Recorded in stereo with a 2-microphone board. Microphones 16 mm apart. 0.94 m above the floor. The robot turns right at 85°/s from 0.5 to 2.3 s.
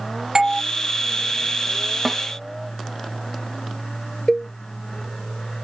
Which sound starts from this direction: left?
A cowbell, at 4.3 s.